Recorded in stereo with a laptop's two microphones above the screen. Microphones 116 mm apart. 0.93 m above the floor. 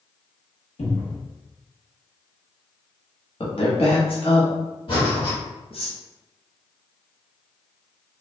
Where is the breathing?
50° left (ahead or behind), 1.3 m.